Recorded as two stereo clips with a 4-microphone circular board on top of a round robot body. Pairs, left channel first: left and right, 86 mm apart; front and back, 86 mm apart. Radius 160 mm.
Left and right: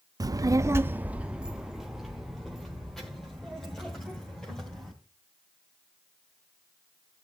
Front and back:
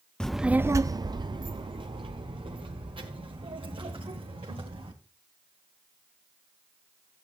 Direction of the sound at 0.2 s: 75° right.